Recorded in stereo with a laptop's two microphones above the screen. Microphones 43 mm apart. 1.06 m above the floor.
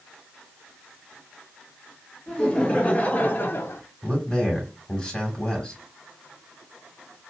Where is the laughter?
20° left (ahead or behind), 1.2 m; by 3.8 s 60° left (ahead or behind), 0.7 m.